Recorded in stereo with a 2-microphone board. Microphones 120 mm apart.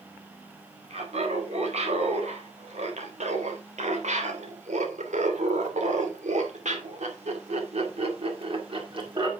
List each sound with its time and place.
0.9 s laughter: 65° right (ahead or behind), 4.5 m; by 9.3 s 40° right (ahead or behind), 2.5 m